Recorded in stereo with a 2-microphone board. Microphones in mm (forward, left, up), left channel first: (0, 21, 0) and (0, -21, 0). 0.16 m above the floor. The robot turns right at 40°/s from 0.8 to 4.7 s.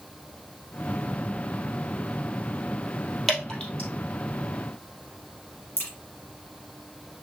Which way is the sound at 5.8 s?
50° left (ahead or behind).